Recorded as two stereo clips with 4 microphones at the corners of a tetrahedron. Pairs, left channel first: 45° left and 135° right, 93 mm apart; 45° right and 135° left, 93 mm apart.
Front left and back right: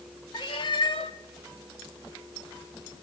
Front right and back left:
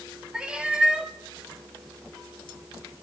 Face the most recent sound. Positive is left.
turn(degrees=55)